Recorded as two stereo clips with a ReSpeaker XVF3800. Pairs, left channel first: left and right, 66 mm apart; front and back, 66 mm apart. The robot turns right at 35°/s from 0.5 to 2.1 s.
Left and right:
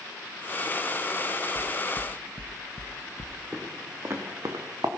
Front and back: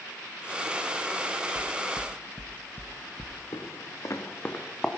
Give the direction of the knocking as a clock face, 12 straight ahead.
3 o'clock.